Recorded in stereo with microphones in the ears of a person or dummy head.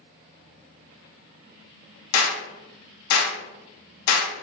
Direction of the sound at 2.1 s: 80° left.